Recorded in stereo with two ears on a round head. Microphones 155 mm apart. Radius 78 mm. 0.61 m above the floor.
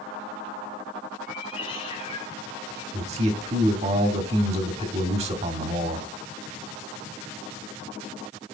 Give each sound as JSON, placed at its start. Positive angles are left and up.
{"t": 1.3, "sound": "a cat meowing", "side_deg": 30, "distance_m": 3.5}
{"t": 2.9, "sound": "a man speaking", "side_deg": -35, "distance_m": 1.5}